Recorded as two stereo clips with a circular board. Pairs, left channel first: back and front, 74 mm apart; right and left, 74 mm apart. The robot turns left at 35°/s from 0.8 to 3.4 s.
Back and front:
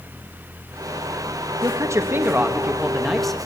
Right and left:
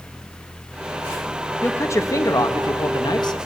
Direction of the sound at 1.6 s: 35° right.